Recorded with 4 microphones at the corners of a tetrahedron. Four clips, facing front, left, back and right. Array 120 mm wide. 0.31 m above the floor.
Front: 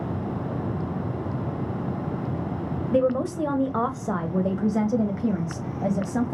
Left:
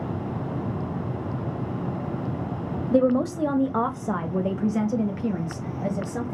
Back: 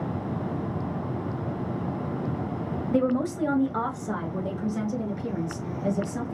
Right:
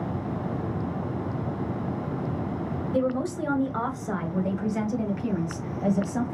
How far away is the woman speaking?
About 1.3 m.